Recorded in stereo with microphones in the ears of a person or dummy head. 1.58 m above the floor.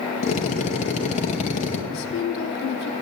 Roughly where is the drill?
Left.